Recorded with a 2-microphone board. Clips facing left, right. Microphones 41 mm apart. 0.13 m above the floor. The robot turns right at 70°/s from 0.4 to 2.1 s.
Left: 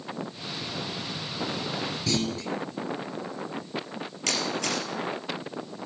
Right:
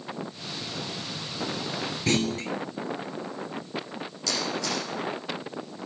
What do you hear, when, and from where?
2.1 s a clunk: 50° right (ahead or behind), 0.9 m; by 2.5 s 45° right (ahead or behind), 0.9 m
4.3 s a camera shutter: 60° left (ahead or behind), 3.5 m